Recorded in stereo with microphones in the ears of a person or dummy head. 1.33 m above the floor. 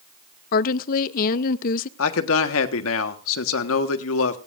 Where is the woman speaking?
45° left (ahead or behind), 0.7 m.